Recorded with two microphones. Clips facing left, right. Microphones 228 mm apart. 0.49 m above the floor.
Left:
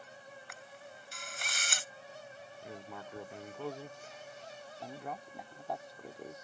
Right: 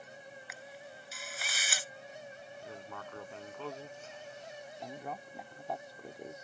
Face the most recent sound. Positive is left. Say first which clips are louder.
# even
turn(degrees=0)  # may be behind; listen again after turning